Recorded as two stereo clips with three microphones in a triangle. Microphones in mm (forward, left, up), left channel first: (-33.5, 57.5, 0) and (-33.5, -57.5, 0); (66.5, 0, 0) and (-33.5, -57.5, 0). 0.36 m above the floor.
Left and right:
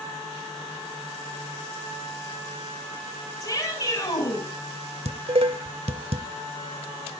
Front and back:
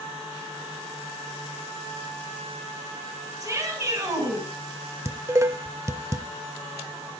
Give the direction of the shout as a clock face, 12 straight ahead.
7 o'clock.